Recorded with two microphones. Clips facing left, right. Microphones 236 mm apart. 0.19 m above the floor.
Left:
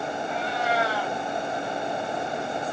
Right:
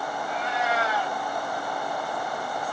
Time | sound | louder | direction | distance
0.3 | a cat meowing | even | 35° left (ahead or behind) | 6 m